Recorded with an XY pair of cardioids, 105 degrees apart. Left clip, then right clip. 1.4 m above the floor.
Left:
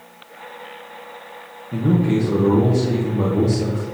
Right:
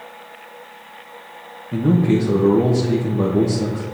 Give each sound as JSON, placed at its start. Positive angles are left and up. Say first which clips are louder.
{"t": 1.7, "sound": "a man speaking", "louder": "right 2 dB", "azimuth_deg": -20, "distance_m": 1.2}